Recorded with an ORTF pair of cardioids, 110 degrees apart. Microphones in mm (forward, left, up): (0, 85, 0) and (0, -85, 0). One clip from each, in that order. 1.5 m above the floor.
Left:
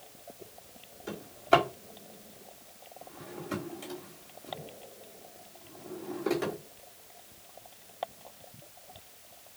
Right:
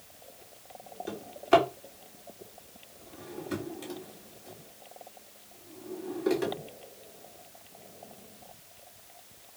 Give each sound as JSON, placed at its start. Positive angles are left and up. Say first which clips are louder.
{"t": 1.1, "sound": "a drawer", "louder": "right 1 dB", "azimuth_deg": 0, "distance_m": 2.5}